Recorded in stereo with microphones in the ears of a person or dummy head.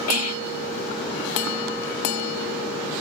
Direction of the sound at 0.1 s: 80° left.